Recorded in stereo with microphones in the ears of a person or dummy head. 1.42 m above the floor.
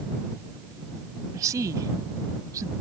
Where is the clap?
I don't hear a clap.